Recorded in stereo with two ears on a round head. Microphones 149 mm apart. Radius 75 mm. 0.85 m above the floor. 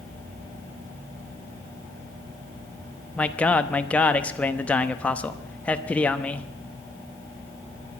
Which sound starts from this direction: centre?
A man speaking, at 3.2 s.